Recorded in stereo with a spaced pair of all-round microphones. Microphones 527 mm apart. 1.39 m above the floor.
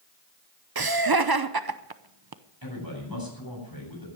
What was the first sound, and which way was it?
Laughter, 45° right (ahead or behind).